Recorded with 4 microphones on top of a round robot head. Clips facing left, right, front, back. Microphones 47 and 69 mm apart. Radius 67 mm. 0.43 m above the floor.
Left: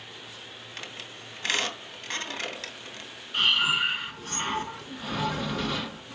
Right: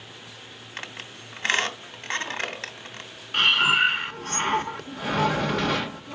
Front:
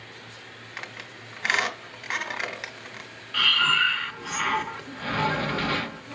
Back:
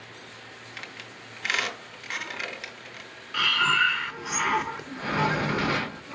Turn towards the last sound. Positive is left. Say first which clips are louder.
# right 4 dB, even
turn(degrees=-105)